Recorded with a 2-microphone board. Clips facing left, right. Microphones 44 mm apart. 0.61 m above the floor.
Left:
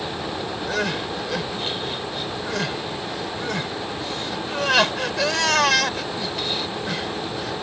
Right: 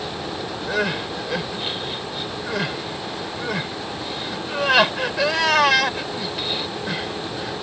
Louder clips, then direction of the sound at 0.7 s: Right 2 dB; 10° right (ahead or behind).